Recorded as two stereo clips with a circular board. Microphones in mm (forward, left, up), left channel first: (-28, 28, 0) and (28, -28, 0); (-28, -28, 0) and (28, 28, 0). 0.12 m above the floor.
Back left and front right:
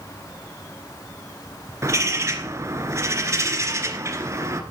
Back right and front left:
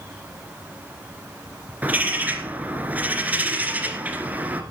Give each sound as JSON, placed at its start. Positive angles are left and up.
{"t": 1.8, "sound": "a bird", "azimuth_deg": -15, "distance_m": 2.0}